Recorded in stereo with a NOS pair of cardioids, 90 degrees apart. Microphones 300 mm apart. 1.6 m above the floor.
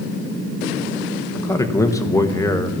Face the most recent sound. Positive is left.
turn(degrees=10)